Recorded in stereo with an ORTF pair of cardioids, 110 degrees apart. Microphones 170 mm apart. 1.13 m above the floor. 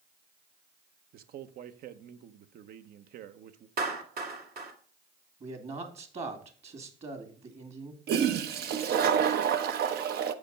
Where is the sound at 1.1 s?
60° right, 0.9 m.